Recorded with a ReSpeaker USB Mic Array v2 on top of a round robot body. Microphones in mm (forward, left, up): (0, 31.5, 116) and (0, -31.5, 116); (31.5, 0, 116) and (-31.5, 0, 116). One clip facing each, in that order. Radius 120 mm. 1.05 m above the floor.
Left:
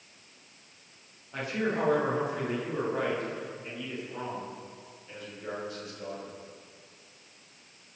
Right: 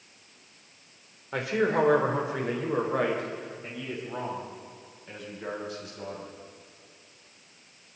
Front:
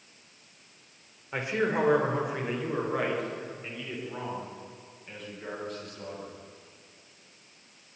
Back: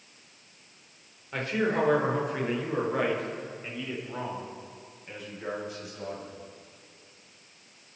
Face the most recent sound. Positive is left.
turn(degrees=-100)